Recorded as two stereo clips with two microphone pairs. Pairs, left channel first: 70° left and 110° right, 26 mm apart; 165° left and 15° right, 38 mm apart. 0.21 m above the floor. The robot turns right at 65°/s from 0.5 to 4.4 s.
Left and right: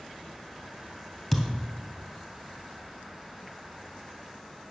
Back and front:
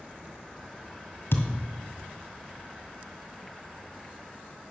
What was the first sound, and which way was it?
A thud, 155° left.